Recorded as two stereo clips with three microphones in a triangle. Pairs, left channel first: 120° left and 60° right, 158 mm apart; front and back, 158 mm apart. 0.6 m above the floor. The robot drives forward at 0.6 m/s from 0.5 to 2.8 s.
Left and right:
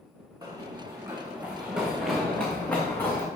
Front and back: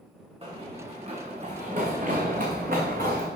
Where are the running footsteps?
125° right, 3 m; by 3.3 s 165° right, 2.5 m.